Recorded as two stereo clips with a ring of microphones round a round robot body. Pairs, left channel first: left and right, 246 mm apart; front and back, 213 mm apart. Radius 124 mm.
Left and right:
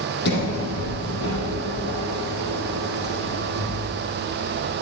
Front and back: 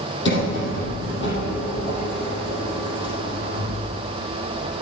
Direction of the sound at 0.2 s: 40° left.